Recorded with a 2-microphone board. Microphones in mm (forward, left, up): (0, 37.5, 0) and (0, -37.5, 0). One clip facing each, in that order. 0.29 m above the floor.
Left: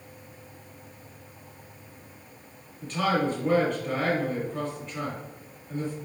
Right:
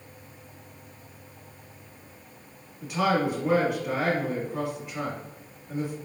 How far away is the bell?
I don't hear a bell.